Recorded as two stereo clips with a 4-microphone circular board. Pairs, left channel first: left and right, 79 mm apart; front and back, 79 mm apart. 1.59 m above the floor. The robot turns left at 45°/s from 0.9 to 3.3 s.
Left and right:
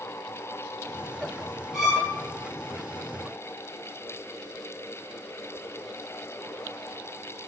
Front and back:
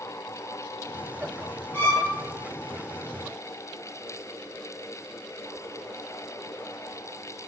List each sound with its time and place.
1.7 s a violin: 15° right, 1.0 m; by 2.1 s 30° right, 1.0 m